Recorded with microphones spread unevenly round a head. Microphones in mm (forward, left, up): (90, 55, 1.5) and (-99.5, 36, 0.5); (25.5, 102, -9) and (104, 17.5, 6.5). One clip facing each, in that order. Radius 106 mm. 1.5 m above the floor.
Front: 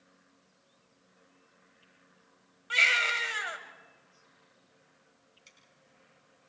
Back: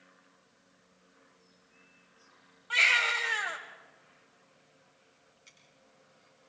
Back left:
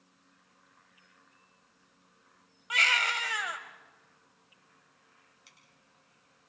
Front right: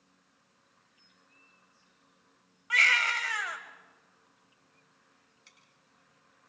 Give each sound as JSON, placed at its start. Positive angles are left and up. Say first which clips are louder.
{"t": 2.7, "sound": "a baby crying", "louder": "even, front right 1 dB", "azimuth_deg": 60, "distance_m": 3.0}
{"t": 5.5, "sound": "scissors", "louder": "back 1 dB, back left 1 dB", "azimuth_deg": 50, "distance_m": 9.5}